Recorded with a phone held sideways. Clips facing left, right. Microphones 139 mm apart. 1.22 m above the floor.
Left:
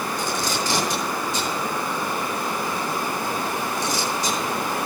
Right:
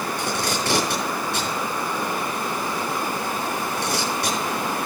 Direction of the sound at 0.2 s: 70° right (ahead or behind).